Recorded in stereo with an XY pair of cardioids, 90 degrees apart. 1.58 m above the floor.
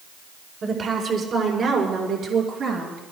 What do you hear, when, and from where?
0.6 s a woman speaking: 60° right, 4 m; by 3.0 s 75° right, 7 m